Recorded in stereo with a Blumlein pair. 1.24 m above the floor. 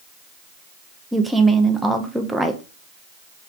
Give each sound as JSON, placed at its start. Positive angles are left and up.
{"t": 1.1, "sound": "a woman speaking", "azimuth_deg": -5, "distance_m": 0.7}